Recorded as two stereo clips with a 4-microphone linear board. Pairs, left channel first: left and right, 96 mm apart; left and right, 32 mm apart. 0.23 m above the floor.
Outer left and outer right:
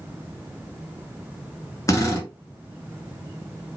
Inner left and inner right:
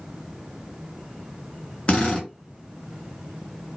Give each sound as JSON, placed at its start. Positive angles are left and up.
{"t": 1.9, "sound": "a drill", "side_deg": 35, "distance_m": 1.0}